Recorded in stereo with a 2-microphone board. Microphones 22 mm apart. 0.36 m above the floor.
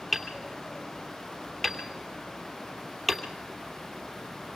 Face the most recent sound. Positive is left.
turn(degrees=10)  # may be behind; listen again after turning